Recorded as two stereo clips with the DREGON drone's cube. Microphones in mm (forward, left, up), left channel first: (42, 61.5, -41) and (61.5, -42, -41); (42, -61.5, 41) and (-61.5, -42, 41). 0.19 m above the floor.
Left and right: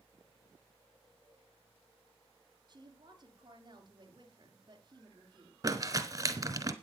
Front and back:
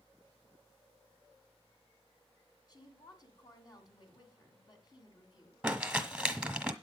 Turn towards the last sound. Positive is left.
turn(degrees=-110)